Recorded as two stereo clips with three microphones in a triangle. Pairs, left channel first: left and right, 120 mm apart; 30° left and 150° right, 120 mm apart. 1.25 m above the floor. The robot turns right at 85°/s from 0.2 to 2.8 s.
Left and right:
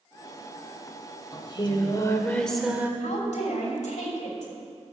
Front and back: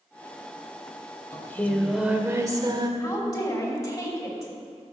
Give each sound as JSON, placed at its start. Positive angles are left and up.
{"t": 1.3, "sound": "singing", "azimuth_deg": 75, "distance_m": 1.1}
{"t": 3.0, "sound": "a woman speaking", "azimuth_deg": 85, "distance_m": 3.0}